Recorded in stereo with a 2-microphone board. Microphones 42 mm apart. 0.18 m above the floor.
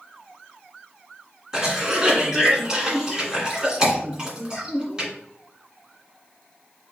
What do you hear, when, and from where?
1.5 s a cough: 20° right (ahead or behind), 1.6 m